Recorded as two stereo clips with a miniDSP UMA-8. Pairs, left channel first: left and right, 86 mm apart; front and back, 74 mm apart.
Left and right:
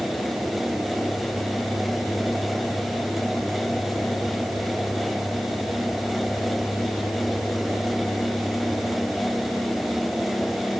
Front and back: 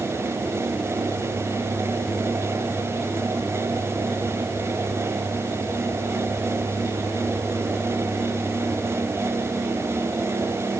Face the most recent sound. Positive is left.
No sound to turn to.